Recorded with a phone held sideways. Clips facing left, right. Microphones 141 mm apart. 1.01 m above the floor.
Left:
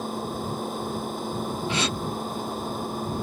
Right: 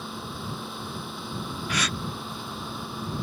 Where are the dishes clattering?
I don't hear dishes clattering.